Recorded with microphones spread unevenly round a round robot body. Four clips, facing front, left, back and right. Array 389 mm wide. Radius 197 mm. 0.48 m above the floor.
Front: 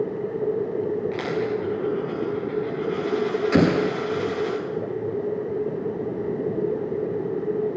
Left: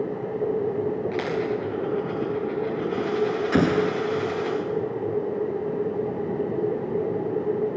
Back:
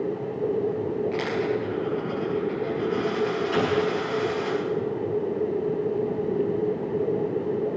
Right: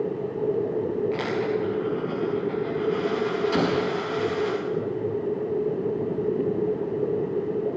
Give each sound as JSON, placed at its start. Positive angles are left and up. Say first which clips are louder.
{"t": 1.1, "sound": "a dropped coin", "louder": "even, even", "azimuth_deg": 60, "distance_m": 10.0}
{"t": 3.5, "sound": "an explosion", "louder": "left 2 dB, front 5 dB", "azimuth_deg": 30, "distance_m": 1.3}